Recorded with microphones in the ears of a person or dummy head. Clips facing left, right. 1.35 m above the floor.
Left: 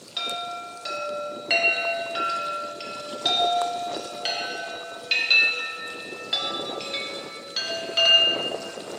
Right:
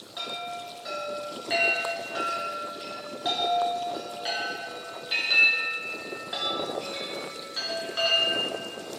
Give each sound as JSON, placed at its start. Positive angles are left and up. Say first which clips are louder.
{"t": 0.2, "sound": "a chime", "louder": "left 2 dB", "side_deg": 40, "distance_m": 1.3}